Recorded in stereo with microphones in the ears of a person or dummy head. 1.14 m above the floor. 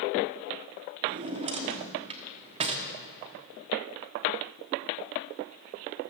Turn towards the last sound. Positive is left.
turn(degrees=-35)  # may be behind; listen again after turning